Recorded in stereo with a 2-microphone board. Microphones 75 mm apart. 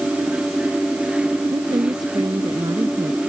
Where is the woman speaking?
65° right (ahead or behind).